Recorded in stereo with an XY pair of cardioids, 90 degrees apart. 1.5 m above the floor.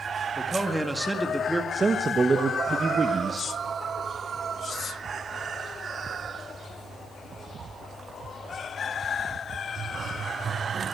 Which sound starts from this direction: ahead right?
A man speaking, at 1.7 s.